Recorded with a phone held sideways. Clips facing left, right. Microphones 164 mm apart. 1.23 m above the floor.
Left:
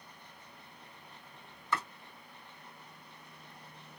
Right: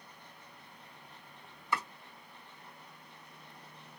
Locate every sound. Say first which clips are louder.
1.7 s chopping: even; 10° right (ahead or behind), 2 m